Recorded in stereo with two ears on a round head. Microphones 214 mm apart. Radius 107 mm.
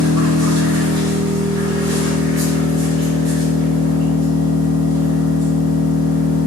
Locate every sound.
0.0 s an engine running: 50° right (ahead or behind), 0.9 m